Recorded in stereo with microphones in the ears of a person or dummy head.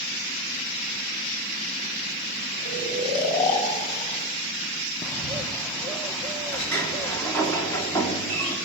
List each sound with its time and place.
2.6 s snoring: 45° left (ahead or behind), 7 m
5.0 s a bird: 5° left (ahead or behind), 1.0 m
6.5 s a sliding door: 15° left (ahead or behind), 3 m